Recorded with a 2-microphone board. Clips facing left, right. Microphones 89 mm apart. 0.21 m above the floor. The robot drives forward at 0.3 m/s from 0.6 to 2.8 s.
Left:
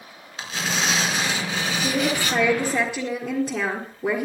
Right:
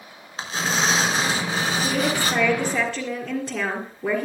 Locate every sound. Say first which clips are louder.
0.4 s tearing paper: right 3 dB; 35° right (ahead or behind), 3 m; by 2.4 s 40° right (ahead or behind), 2.5 m
1.8 s a woman speaking: left 2 dB; 5° left (ahead or behind), 3.5 m